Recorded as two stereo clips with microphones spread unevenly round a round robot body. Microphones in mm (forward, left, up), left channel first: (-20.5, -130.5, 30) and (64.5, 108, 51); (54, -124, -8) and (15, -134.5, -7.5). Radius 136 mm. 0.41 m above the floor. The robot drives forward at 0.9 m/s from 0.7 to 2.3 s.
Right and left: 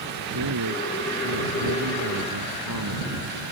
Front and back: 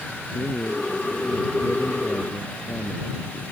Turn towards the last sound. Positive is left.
turn(degrees=80)